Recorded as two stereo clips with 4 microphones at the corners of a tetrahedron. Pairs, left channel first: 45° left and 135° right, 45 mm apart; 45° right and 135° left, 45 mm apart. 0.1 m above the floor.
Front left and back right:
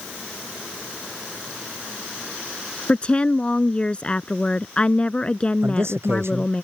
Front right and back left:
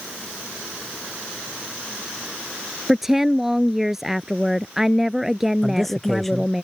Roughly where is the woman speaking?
Ahead left.